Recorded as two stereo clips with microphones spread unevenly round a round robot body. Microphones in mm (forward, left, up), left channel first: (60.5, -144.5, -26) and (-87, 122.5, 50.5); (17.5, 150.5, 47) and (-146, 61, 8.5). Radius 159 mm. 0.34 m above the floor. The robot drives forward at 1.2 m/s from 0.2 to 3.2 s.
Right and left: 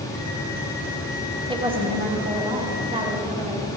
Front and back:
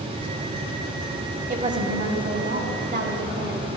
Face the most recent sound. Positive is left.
turn(degrees=-170)